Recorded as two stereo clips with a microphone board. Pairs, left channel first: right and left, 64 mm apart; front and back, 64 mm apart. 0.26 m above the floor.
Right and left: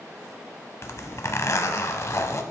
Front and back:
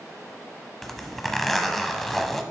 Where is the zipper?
85° right, 0.8 m.